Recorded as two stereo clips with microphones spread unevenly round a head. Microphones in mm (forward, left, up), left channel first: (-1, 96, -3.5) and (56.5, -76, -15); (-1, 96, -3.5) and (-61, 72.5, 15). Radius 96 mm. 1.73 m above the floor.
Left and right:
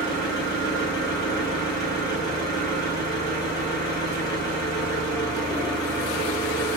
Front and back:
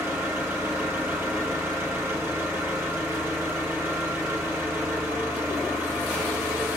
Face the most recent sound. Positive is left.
turn(degrees=175)